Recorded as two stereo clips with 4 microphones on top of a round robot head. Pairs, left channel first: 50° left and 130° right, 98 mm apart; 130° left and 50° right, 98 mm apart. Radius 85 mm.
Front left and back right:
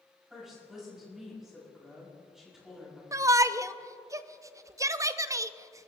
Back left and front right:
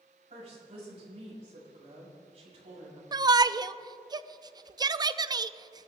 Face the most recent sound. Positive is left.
turn(degrees=-80)